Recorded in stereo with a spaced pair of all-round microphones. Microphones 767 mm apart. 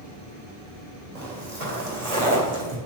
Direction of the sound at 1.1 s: 45° right (ahead or behind).